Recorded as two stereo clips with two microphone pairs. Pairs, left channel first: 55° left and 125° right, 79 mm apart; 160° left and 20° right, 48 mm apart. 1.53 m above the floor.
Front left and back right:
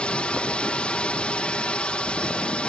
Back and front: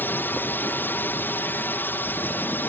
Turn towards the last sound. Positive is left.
turn(degrees=130)